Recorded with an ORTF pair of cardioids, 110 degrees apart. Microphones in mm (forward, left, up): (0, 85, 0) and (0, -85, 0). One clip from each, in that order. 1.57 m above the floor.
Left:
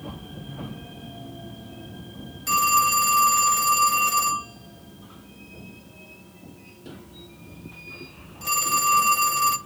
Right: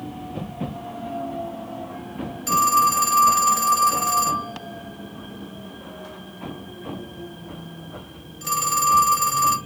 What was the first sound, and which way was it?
A phone ringing, straight ahead.